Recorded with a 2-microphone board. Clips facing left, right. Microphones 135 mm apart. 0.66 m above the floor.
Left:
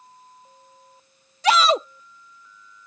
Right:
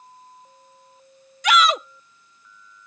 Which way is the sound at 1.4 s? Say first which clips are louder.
Left 1 dB; 35° left (ahead or behind).